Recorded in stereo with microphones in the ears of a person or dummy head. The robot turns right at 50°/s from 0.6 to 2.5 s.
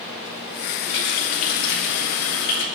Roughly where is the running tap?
Ahead left.